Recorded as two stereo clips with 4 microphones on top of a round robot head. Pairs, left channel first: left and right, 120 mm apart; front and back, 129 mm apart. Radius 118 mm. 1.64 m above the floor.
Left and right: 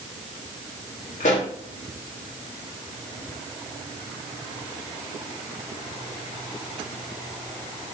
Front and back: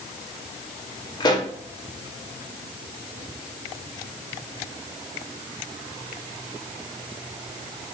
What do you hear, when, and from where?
1.2 s a pop: 55° left, 1.3 m